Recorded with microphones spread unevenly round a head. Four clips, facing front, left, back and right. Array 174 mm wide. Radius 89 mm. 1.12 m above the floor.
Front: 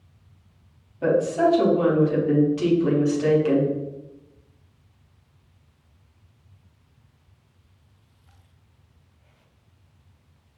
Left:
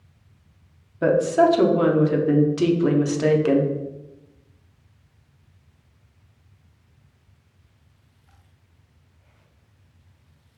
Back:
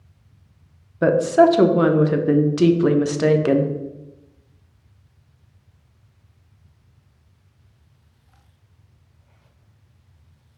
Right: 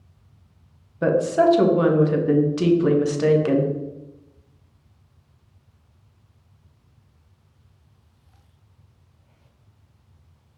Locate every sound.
1.0 s a woman speaking: 165° left, 0.8 m